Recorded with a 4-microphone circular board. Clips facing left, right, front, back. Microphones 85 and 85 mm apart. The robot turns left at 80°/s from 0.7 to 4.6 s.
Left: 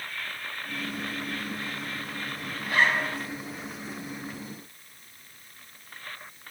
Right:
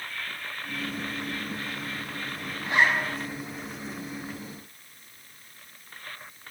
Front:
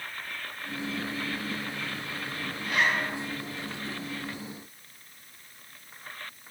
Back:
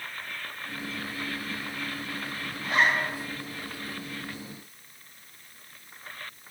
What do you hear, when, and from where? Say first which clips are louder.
2.6 s a zipper: right 1 dB, back 3 dB; 140° right, 1.6 m; by 3.1 s straight behind, 1.6 m